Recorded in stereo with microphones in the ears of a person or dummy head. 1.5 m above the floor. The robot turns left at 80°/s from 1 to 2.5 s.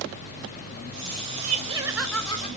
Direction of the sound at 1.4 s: 130° right.